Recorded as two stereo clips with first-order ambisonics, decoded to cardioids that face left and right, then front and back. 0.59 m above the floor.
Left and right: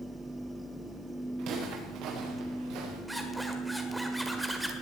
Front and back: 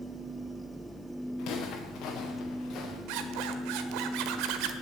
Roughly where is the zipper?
Behind.